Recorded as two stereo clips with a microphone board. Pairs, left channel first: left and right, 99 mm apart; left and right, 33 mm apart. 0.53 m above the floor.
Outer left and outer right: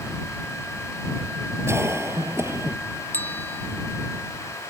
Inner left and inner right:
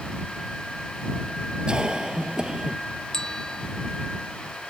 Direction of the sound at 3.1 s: 20° left (ahead or behind).